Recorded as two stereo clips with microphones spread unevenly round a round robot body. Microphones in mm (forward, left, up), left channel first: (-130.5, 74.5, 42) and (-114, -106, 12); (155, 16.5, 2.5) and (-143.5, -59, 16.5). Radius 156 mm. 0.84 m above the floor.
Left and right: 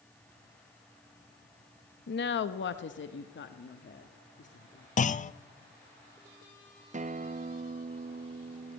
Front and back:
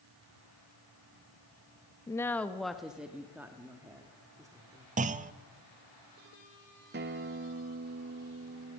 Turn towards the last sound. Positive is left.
turn(degrees=-110)